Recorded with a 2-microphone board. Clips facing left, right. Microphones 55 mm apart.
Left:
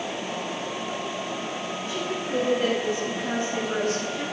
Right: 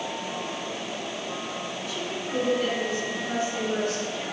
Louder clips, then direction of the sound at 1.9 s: Left 4 dB; 35° left (ahead or behind).